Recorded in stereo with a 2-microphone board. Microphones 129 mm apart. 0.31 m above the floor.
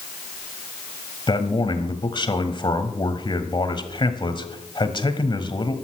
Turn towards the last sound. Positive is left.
turn(degrees=40)  # may be behind; listen again after turning